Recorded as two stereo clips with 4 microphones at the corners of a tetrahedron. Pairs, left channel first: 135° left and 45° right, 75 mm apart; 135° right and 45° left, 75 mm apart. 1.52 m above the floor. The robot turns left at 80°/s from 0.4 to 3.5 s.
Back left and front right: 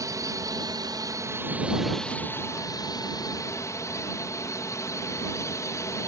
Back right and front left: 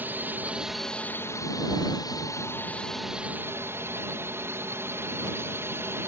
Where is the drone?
15° right; by 6.1 s 95° left.